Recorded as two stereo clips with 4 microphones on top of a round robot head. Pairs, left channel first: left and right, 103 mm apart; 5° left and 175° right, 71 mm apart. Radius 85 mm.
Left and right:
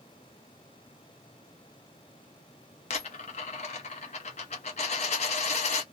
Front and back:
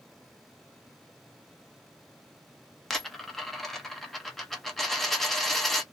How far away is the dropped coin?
About 0.5 m.